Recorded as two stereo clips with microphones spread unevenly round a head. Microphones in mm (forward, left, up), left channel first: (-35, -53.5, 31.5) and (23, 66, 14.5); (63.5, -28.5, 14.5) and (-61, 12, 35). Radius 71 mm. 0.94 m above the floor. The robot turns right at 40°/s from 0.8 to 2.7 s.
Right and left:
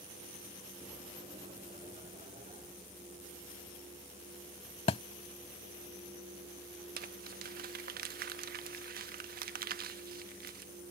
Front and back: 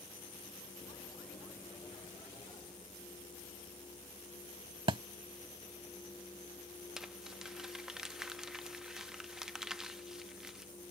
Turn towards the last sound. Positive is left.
turn(degrees=75)